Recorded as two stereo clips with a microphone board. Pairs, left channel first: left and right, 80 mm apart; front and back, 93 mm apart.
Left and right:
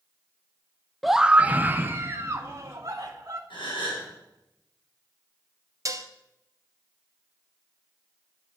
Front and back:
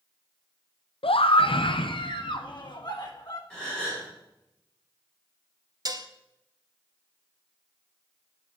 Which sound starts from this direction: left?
A gasp, at 3.5 s.